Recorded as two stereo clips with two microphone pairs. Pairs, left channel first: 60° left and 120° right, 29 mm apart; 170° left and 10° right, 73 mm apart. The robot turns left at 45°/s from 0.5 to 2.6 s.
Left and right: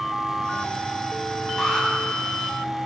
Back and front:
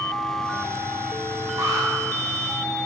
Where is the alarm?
40° right, 8.5 m; by 1.9 s 55° right, 8.5 m.